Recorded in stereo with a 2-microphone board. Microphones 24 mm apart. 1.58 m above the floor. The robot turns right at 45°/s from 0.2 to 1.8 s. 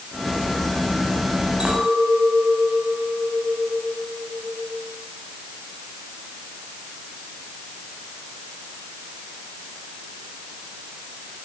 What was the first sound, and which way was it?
A clink, 50° right (ahead or behind).